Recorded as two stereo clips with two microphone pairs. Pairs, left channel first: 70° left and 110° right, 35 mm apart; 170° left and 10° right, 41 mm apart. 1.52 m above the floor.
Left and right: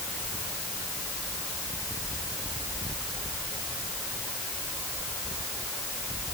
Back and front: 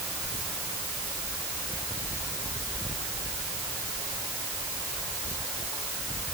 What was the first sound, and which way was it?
Only background noise.